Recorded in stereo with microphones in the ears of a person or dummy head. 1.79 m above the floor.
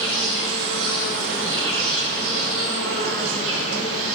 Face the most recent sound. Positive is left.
turn(degrees=-80)